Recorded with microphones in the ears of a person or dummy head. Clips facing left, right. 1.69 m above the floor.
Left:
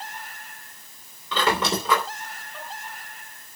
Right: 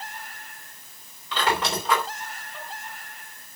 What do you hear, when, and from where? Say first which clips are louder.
1.3 s a squeak: left 2 dB; 70° left (ahead or behind), 3 m